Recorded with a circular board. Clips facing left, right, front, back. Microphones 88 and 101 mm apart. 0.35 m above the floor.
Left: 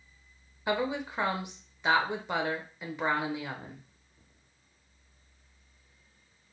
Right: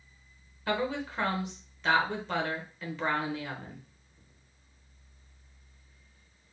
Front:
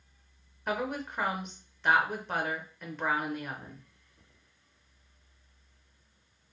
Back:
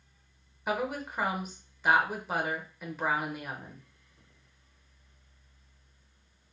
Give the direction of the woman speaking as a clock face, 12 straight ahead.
8 o'clock.